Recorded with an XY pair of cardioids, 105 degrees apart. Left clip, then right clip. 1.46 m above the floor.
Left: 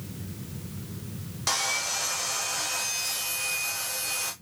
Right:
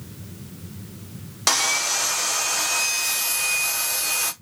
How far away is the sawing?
About 0.7 m.